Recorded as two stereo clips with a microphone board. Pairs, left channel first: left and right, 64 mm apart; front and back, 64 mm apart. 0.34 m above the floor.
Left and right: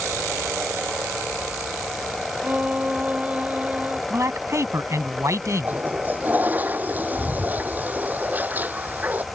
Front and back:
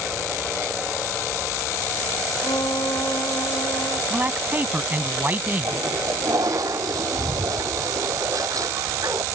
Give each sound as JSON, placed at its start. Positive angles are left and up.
{"t": 2.4, "sound": "a violin", "azimuth_deg": -20}
{"t": 4.1, "sound": "a man speaking", "azimuth_deg": -125}
{"t": 5.6, "sound": "a toilet flushing", "azimuth_deg": -155}